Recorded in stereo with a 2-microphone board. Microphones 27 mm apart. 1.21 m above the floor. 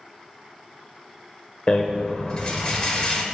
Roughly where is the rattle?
Left.